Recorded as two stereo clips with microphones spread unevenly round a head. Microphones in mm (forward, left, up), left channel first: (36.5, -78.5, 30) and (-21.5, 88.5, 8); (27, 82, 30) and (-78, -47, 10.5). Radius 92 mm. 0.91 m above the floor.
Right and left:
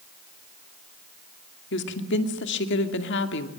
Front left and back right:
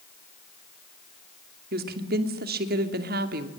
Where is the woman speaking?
100° right, 2.5 m.